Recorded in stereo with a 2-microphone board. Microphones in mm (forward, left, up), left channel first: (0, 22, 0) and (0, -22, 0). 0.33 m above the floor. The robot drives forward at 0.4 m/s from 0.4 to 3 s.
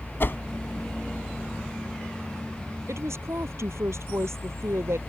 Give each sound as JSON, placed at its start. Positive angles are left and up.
{"t": 0.2, "sound": "a whoosh", "side_deg": 55}
{"t": 2.9, "sound": "a woman speaking", "side_deg": -85}